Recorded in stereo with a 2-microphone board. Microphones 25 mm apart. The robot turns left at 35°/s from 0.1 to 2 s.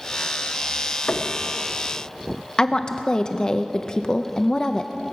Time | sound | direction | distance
1.1 | knocking | 75° left (ahead or behind) | 1.1 m
2.6 | a woman speaking | 35° left (ahead or behind) | 0.5 m